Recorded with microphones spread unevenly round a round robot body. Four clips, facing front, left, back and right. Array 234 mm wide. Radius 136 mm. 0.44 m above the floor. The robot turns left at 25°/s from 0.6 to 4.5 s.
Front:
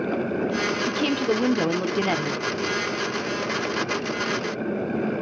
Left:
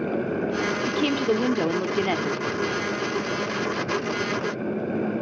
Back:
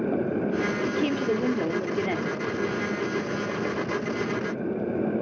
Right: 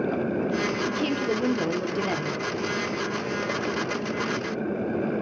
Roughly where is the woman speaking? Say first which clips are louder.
Left 3 dB, front 3 dB; left.